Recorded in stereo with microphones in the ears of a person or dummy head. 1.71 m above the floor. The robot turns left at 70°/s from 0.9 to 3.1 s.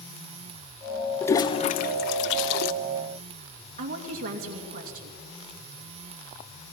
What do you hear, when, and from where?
1.2 s a toilet flushing: 15° left (ahead or behind), 0.7 m; by 2.7 s 55° left (ahead or behind), 0.7 m
3.8 s a woman speaking: 50° right (ahead or behind), 2.5 m